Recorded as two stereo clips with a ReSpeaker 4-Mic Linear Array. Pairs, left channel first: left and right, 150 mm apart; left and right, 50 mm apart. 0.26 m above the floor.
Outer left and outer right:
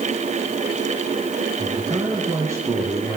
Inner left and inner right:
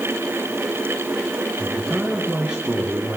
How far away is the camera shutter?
I don't hear a camera shutter.